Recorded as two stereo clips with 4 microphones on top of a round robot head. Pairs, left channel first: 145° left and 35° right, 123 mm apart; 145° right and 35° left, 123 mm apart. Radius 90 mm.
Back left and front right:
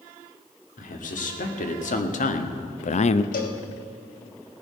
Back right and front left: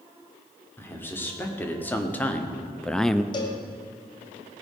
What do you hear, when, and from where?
0.8 s a man speaking: 140° left, 2.5 m; by 3.2 s 125° left, 0.5 m
3.3 s a cowbell: 160° left, 1.4 m